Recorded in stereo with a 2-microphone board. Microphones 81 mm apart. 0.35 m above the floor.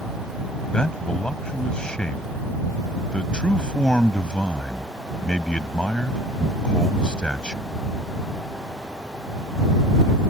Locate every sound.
0.7 s a man speaking: 10° left (ahead or behind)